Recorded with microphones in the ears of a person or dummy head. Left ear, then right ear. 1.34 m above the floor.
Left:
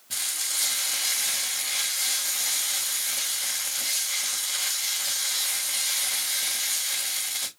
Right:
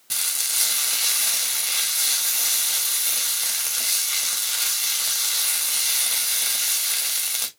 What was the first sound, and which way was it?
Frying, 55° right (ahead or behind).